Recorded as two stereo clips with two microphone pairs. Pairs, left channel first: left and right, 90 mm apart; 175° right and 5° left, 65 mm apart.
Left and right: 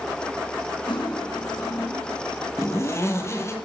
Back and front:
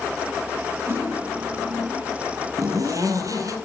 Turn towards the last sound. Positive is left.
turn(degrees=30)